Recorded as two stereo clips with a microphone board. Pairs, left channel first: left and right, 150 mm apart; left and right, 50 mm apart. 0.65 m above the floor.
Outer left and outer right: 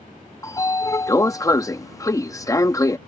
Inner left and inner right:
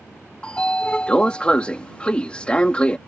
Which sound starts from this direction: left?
A sliding door, at 0.4 s.